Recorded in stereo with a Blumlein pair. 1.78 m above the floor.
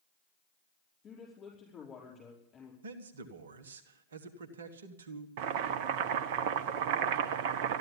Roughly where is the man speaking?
Ahead right.